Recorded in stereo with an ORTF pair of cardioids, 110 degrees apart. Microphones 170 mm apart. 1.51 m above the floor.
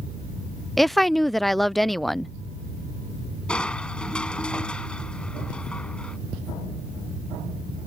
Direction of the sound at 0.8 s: Straight ahead.